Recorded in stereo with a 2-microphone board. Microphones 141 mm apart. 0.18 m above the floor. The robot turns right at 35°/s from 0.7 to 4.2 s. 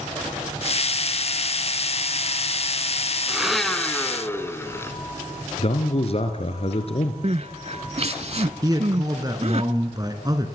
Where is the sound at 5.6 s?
45° left (ahead or behind), 2.5 m.